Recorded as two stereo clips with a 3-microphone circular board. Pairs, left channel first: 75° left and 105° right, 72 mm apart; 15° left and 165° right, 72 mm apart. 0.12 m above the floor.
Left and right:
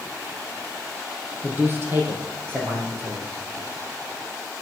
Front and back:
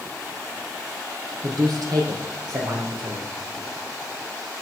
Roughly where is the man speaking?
Behind.